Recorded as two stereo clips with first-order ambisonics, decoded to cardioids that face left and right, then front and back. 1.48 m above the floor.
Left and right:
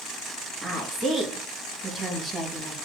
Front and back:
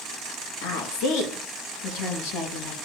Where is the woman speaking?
10° right, 1.5 m.